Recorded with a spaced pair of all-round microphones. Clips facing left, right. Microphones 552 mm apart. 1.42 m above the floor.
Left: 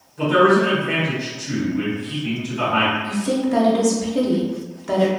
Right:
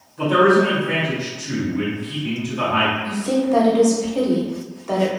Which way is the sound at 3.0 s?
40° left (ahead or behind).